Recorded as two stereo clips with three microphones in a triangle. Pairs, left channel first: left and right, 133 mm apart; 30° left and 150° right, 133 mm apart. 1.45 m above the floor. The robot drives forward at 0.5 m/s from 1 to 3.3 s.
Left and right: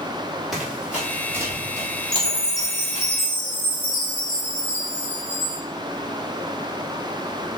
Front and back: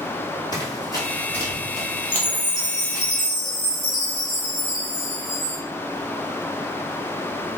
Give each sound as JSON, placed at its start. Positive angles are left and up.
{"t": 0.5, "sound": "running footsteps", "azimuth_deg": 0, "distance_m": 1.7}
{"t": 2.1, "sound": "a chime", "azimuth_deg": 155, "distance_m": 0.9}